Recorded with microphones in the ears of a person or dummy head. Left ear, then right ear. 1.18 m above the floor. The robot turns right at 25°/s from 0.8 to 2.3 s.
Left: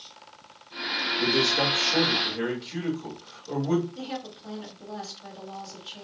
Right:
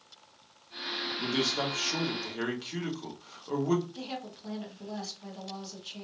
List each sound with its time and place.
1.2 s a man speaking: 35° right (ahead or behind), 1.2 m; by 3.9 s 60° right (ahead or behind), 1.2 m
4.0 s a woman speaking: 35° right (ahead or behind), 1.1 m